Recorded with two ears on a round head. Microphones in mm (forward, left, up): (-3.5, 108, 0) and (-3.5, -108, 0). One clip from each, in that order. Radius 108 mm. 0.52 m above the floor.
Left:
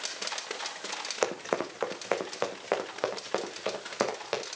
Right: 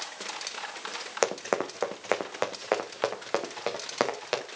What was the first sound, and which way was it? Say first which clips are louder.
Running footsteps: right 3 dB; 15° right (ahead or behind).